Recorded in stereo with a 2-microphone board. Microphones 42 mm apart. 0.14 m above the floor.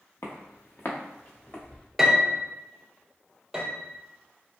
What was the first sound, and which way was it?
Footsteps, 80° left.